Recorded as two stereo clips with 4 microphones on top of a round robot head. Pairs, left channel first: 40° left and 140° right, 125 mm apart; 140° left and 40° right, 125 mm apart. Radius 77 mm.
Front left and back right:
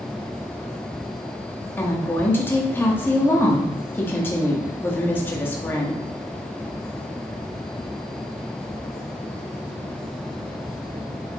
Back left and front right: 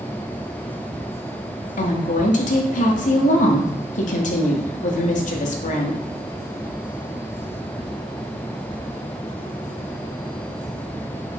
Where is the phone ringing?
No phone ringing in this recording.